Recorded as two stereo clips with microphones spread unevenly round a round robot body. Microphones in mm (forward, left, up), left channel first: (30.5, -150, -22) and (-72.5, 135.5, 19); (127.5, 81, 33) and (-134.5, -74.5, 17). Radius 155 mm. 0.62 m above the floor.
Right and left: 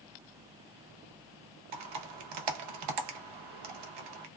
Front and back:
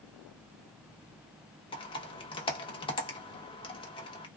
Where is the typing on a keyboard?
105° left, 0.7 m.